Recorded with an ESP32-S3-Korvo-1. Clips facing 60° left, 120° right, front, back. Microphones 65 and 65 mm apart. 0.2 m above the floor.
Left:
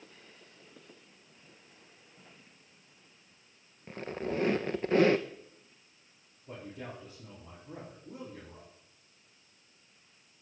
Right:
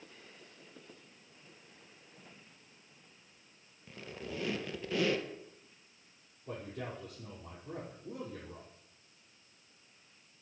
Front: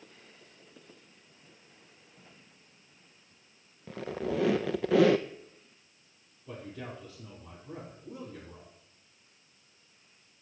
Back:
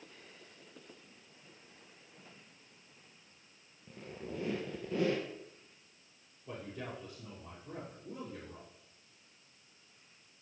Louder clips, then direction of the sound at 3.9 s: Left 8 dB, front 11 dB; 10° left.